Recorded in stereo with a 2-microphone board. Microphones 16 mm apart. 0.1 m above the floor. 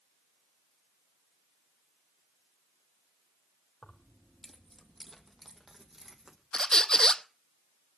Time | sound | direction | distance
3.8 | keys jangling | 40° left (ahead or behind) | 2.5 m
6.5 | a squeak | 45° left (ahead or behind) | 0.5 m